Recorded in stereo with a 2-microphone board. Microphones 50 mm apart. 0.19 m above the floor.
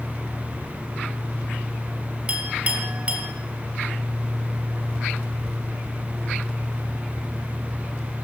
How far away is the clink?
About 4 m.